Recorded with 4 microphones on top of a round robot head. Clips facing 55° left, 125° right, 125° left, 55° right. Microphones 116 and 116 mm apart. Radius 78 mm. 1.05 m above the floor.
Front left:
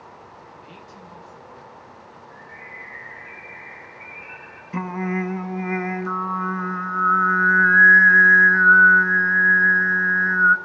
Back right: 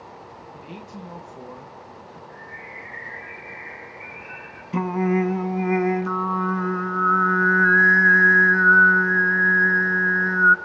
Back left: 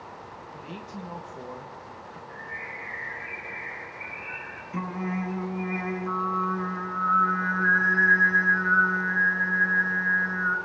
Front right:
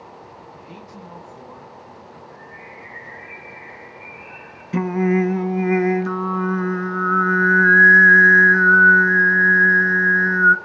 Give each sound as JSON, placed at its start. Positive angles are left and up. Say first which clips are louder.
{"t": 0.5, "sound": "a man speaking", "louder": "back right 4 dB, even", "azimuth_deg": -160, "distance_m": 1.6}
{"t": 2.3, "sound": "a bird", "louder": "back right 2 dB, even", "azimuth_deg": 130, "distance_m": 8.0}
{"t": 4.7, "sound": "singing", "louder": "back right 4 dB, front right 13 dB", "azimuth_deg": -50, "distance_m": 0.7}